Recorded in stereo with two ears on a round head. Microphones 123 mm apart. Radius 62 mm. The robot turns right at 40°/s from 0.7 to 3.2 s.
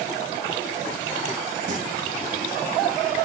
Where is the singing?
60° right (ahead or behind), 2.5 m.